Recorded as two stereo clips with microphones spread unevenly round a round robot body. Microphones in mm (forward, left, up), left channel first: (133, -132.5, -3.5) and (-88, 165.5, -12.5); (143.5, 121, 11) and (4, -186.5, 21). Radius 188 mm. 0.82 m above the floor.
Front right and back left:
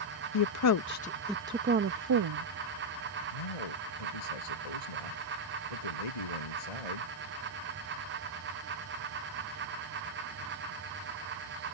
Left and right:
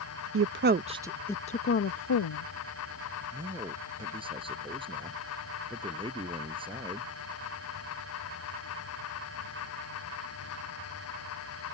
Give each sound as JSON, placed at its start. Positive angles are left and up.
{"t": 0.3, "sound": "a woman speaking", "azimuth_deg": -70}
{"t": 3.3, "sound": "a man speaking", "azimuth_deg": -40}